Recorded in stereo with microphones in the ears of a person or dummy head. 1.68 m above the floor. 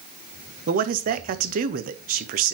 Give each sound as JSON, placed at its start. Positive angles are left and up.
{"t": 0.7, "sound": "a man speaking", "side_deg": -40, "distance_m": 0.7}